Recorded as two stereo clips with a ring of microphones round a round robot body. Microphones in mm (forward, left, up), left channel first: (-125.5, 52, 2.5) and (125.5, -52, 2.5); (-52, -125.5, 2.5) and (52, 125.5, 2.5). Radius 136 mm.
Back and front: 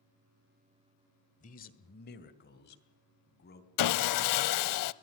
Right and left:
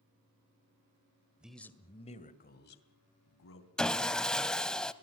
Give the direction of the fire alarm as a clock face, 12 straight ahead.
I don't hear a fire alarm.